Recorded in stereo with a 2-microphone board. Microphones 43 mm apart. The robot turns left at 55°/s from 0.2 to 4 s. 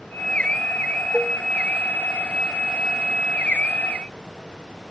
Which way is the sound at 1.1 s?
15° right (ahead or behind).